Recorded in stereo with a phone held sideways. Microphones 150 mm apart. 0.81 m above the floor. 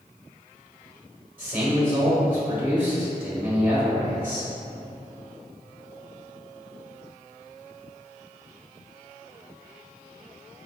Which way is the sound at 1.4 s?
15° right (ahead or behind).